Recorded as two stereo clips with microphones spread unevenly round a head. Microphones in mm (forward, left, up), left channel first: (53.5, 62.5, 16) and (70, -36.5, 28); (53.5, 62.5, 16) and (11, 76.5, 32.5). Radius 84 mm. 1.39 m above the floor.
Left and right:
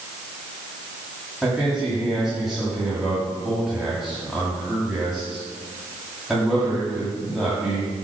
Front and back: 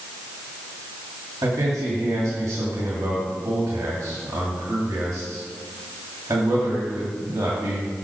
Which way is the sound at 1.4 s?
165° right.